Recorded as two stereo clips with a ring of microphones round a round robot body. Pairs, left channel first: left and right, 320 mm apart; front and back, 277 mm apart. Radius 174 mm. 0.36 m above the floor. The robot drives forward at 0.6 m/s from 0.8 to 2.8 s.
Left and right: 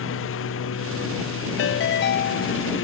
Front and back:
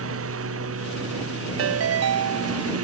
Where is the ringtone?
145° left; by 2.7 s 155° left.